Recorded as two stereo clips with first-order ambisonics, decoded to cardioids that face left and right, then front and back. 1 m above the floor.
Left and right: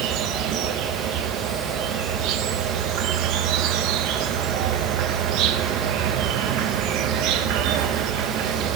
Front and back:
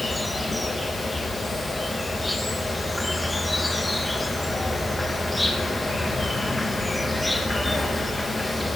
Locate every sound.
0.0 s an insect: 85° right, 0.9 m